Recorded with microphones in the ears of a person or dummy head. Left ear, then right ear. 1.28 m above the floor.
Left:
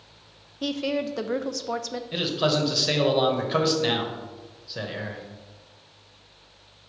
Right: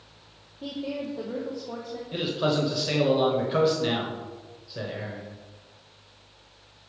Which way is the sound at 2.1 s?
20° left (ahead or behind).